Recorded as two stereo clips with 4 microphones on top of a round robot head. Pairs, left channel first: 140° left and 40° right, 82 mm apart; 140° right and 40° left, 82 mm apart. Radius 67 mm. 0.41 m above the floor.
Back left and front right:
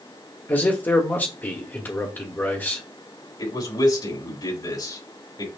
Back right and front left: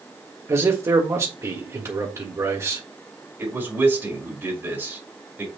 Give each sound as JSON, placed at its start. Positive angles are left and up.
{"t": 0.5, "sound": "a man speaking", "azimuth_deg": 80, "distance_m": 1.7}
{"t": 3.4, "sound": "a man speaking", "azimuth_deg": 105, "distance_m": 4.5}